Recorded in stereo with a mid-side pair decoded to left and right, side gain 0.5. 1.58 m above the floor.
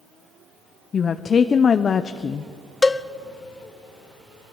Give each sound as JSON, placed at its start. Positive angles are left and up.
{"t": 0.9, "sound": "a woman speaking", "azimuth_deg": 40, "distance_m": 0.8}
{"t": 2.8, "sound": "a cowbell", "azimuth_deg": 20, "distance_m": 0.8}